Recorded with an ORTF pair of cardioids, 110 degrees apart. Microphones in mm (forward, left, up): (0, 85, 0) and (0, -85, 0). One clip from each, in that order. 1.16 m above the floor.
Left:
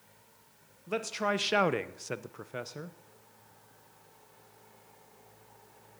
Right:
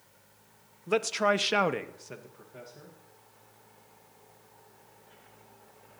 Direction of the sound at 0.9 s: 35° right.